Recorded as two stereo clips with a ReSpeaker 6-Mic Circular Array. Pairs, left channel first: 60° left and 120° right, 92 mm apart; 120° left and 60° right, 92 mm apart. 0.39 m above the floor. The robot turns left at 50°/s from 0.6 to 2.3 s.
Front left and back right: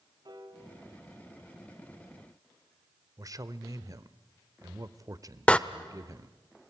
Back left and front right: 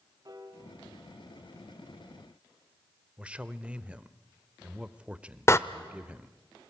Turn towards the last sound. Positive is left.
turn(degrees=125)